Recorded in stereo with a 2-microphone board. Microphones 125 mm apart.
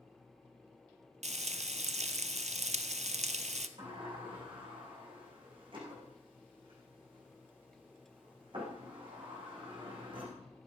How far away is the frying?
About 0.7 m.